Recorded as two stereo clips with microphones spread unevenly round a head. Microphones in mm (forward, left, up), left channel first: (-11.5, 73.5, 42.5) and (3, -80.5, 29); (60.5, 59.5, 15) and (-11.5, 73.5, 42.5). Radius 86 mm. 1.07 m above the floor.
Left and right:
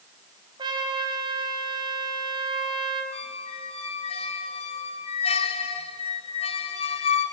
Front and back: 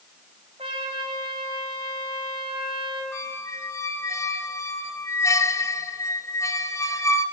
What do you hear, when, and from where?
0.6 s a trumpet: 150° right, 3 m
3.1 s a squeak: 45° left, 2 m